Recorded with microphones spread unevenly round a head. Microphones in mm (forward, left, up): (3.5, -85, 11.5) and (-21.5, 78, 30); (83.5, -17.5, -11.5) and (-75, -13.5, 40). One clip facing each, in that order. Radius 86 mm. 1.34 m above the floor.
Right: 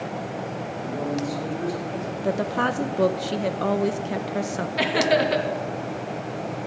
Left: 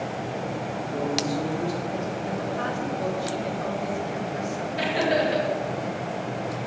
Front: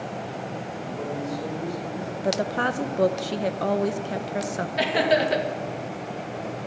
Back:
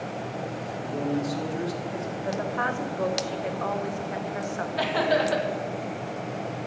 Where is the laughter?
65° right, 2 m.